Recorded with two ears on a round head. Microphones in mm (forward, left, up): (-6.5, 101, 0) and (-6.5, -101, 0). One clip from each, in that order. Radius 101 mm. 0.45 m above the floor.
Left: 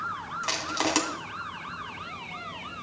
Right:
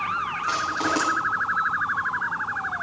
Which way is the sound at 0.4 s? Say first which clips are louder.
Right 1 dB; 80° left.